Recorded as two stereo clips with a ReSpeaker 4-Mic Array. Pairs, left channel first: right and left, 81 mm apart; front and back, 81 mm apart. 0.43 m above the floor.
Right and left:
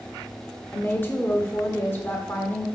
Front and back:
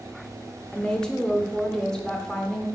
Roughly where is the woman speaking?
Right.